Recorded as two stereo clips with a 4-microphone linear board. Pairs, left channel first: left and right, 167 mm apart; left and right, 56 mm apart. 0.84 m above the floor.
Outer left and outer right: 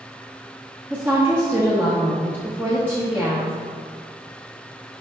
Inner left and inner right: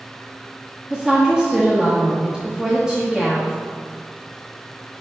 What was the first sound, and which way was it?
A woman speaking, 15° right (ahead or behind).